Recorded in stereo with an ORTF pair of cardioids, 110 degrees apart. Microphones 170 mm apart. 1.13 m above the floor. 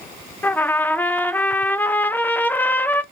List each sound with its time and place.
0.4 s a trumpet: 10° left, 0.5 m